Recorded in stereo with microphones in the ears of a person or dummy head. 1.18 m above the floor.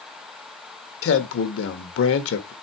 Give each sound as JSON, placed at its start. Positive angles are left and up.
{"t": 1.0, "sound": "a man speaking", "side_deg": 80, "distance_m": 1.2}